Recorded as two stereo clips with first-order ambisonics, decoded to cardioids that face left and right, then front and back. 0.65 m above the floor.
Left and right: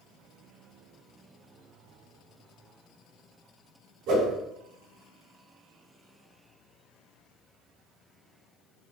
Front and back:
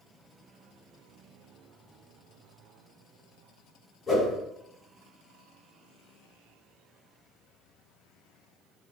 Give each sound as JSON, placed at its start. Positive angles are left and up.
{"t": 4.1, "sound": "a whoosh", "azimuth_deg": -65, "distance_m": 2.0}